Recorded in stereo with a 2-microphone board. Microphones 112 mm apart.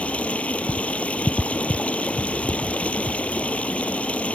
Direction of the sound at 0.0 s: 10° left (ahead or behind).